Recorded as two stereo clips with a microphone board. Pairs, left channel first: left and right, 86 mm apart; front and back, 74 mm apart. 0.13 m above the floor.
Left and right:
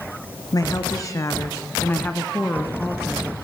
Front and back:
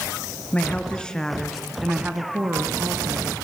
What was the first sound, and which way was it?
A woman speaking, 65° left.